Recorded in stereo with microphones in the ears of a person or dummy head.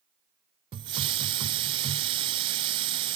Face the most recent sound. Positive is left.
turn(degrees=-30)  # may be behind; listen again after turning